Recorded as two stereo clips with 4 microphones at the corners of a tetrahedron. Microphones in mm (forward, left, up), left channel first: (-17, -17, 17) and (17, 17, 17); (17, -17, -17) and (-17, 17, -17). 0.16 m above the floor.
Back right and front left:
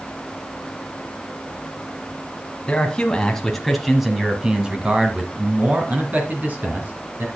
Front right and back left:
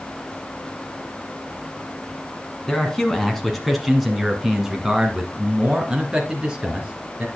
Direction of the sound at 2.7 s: 110° right.